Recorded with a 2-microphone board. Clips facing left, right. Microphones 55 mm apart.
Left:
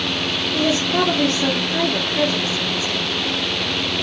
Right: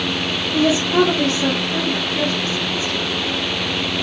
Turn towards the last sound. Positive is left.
turn(degrees=40)  # may be behind; listen again after turning